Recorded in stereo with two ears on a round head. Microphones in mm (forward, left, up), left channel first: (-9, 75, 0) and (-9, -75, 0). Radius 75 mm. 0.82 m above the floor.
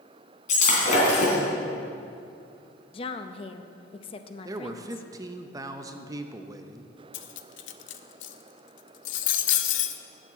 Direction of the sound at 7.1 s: 85° left.